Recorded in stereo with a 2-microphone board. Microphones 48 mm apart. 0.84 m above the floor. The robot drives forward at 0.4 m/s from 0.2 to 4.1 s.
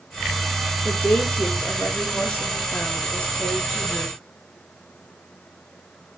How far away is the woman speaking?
About 1.0 m.